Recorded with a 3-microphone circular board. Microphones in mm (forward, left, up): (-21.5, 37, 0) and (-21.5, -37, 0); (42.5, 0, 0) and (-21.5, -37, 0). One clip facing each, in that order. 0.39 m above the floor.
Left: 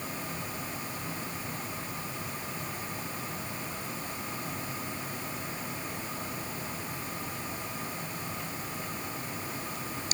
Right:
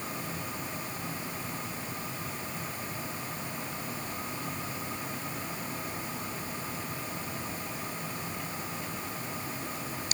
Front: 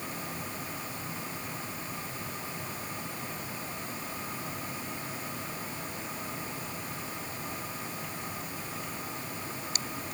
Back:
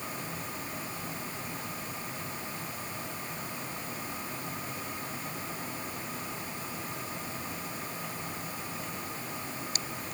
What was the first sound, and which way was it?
Only background noise.